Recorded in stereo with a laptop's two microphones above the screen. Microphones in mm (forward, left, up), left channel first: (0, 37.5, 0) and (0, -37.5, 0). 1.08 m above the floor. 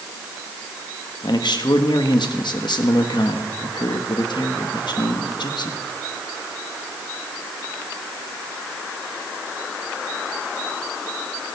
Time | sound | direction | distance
1.2 | a man speaking | 75° left (ahead or behind) | 1.6 m